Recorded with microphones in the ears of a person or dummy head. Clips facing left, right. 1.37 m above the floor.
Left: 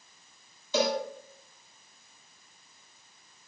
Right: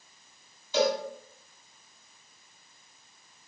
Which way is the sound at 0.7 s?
85° left.